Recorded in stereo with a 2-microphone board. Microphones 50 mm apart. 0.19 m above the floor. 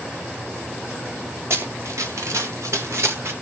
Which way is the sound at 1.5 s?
60° right (ahead or behind).